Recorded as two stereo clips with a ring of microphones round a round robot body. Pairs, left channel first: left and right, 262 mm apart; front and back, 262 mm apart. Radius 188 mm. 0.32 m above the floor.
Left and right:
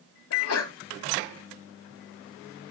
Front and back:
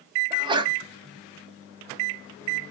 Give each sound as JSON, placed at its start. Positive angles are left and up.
{"t": 0.3, "sound": "a sneeze", "azimuth_deg": 110, "distance_m": 2.0}